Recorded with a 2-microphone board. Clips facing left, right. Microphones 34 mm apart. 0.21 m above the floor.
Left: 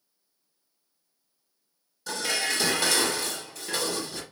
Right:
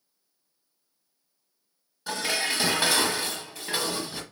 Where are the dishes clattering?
20° right (ahead or behind), 0.8 m.